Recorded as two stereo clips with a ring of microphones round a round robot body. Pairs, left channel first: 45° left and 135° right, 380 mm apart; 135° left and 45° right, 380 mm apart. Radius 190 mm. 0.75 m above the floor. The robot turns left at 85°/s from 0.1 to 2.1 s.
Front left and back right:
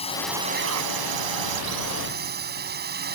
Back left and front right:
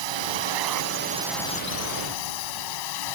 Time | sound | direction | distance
0.0 | a drone | 30° right | ?